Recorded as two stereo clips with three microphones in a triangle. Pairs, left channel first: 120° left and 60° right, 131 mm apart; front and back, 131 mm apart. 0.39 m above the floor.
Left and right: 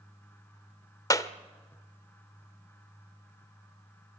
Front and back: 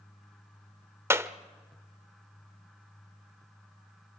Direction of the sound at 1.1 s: 135° left.